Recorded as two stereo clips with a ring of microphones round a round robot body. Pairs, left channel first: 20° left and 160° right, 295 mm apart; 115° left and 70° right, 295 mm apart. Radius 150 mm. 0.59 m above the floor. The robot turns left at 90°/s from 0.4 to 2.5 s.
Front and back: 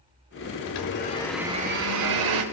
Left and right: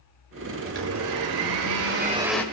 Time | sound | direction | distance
0.7 | a blender | 5° right | 1.7 m